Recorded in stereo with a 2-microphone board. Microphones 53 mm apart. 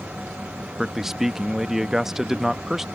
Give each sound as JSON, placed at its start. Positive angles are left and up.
{"t": 0.8, "sound": "a man speaking", "side_deg": -5}